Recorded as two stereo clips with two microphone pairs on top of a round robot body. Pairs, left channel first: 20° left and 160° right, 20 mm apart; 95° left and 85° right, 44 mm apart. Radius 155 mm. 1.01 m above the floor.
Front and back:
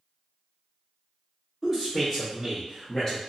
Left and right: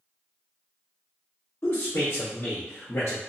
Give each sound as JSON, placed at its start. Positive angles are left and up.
{"t": 1.6, "sound": "a man speaking", "azimuth_deg": 120, "distance_m": 1.2}